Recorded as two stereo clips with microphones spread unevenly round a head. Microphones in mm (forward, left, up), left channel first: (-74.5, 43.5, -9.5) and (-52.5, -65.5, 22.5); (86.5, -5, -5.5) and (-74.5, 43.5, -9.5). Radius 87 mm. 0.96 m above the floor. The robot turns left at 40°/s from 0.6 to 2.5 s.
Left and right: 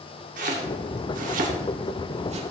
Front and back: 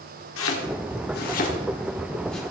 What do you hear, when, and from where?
0.4 s chopping: 35° right, 1.8 m; by 2.4 s 105° right, 1.8 m